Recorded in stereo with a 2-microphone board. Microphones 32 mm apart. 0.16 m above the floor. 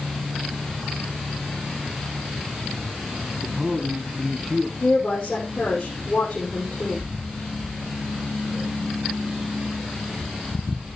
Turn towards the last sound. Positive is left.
turn(degrees=35)  # may be behind; listen again after turning